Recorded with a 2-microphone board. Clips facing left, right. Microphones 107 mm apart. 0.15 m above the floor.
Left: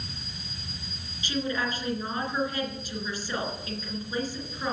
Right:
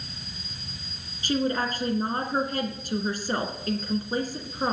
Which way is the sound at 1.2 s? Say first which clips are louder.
Right 4 dB; 50° right (ahead or behind).